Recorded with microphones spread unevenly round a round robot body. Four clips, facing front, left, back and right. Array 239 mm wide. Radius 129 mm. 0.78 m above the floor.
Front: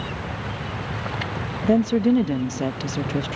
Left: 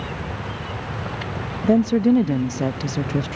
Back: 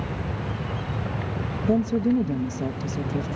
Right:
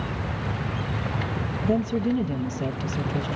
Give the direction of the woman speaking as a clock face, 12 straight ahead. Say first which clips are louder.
Left 8 dB, front 4 dB; 11 o'clock.